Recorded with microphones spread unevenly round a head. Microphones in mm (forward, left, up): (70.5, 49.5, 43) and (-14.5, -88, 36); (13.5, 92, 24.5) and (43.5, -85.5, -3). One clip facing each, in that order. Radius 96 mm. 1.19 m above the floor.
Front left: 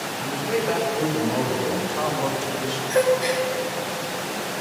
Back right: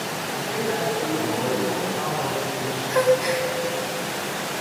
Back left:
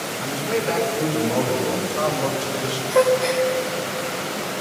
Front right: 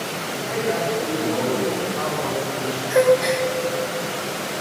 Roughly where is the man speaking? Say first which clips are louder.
Front left 4 dB, back left 2 dB; left.